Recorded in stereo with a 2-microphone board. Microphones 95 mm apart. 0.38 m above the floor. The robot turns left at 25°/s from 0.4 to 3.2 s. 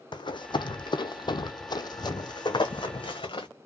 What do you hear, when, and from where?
0.1 s running footsteps: 50° left (ahead or behind), 0.9 m; by 3.5 s 60° left (ahead or behind), 1.5 m